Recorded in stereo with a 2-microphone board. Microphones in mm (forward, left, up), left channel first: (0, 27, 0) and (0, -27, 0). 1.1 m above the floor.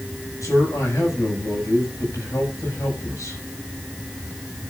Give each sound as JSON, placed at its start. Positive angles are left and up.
{"t": 0.4, "sound": "a man speaking", "side_deg": 80, "distance_m": 6.5}